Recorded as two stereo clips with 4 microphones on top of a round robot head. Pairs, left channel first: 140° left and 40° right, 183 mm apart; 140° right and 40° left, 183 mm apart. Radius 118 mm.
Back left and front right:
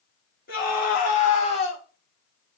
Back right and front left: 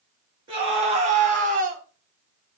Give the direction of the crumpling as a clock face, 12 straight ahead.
No crumpling in this recording.